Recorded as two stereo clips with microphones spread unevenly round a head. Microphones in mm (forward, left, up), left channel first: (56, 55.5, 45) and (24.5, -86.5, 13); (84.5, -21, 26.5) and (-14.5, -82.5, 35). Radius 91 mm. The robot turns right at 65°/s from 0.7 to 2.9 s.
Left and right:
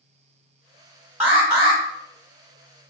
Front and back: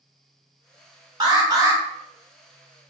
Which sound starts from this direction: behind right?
An alarm, at 1.2 s.